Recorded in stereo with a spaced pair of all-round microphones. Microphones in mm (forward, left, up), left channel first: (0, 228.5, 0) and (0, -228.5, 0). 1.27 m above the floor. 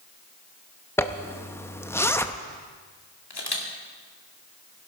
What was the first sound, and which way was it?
A zipper, 5° left (ahead or behind).